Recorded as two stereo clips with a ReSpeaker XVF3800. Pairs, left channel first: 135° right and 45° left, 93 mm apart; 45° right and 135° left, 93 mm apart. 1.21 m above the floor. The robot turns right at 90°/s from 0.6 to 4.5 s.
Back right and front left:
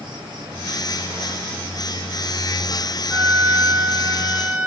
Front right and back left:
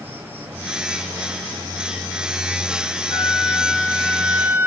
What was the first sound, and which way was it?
An insect, 70° left.